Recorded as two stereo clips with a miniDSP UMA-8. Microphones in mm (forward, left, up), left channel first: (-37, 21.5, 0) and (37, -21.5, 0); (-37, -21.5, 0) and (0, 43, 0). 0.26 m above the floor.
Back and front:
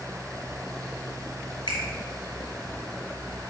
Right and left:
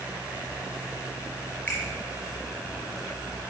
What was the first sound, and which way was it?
A finger snap, 175° left.